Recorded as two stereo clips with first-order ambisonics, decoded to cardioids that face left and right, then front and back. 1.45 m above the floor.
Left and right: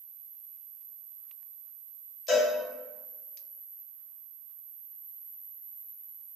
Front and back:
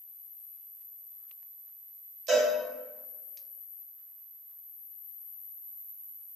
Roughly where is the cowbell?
Left.